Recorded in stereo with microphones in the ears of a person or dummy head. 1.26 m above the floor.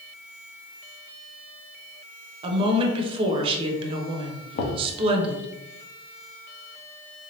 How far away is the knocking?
About 0.8 m.